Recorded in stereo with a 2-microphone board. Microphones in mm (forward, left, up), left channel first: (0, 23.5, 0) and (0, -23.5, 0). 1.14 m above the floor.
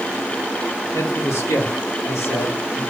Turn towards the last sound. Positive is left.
turn(degrees=75)  # may be behind; listen again after turning